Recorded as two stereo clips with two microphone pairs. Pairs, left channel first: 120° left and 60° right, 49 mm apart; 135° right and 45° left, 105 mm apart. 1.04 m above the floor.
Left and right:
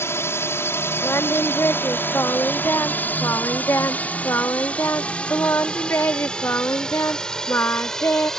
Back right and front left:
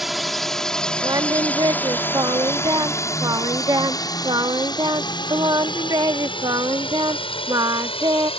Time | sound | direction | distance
0.0 | a drone | 130° left | ?
1.0 | singing | 90° left | ?